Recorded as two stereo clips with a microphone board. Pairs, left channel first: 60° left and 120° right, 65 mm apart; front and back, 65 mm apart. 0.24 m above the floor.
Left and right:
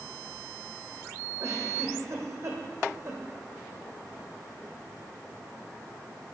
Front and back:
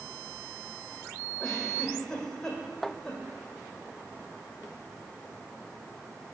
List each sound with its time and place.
1.4 s a giggle: 80° right, 2 m